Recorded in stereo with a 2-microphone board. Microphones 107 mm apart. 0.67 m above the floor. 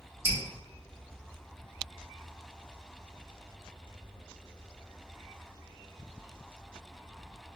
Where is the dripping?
25° right (ahead or behind), 1.1 m.